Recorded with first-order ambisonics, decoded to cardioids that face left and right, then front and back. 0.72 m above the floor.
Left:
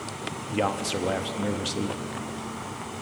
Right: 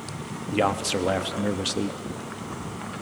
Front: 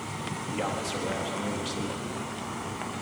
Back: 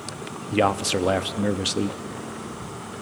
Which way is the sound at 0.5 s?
165° right.